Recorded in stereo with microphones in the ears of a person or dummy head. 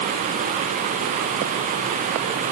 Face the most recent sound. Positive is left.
No sound to turn to.